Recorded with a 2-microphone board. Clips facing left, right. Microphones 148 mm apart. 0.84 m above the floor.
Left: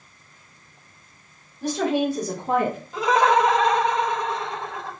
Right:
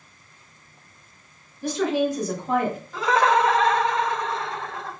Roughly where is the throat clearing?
I don't hear throat clearing.